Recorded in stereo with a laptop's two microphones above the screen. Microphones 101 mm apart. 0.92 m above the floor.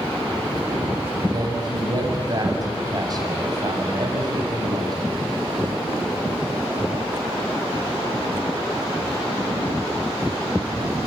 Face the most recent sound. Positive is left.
turn(degrees=-40)  # may be behind; listen again after turning